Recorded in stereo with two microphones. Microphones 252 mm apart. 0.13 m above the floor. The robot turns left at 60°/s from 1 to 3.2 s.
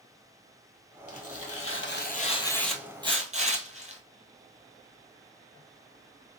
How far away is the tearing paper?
About 0.9 m.